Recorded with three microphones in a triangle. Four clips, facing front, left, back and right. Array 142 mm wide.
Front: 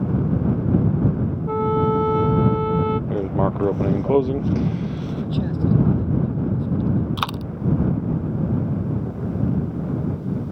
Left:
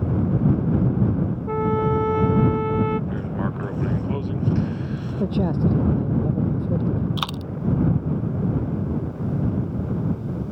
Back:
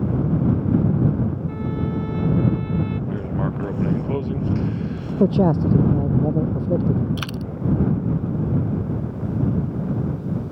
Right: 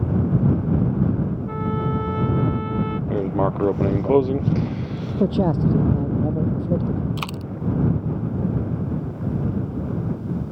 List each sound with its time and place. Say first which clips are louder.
1.5 s a trumpet: left 4 dB, front 7 dB; 35° left
3.1 s writing: right 6 dB, front 4 dB; 55° right
5.2 s a man speaking: right 3 dB, back 8 dB; 150° right
7.2 s a dropped coin: left 1 dB, front 3 dB; 10° left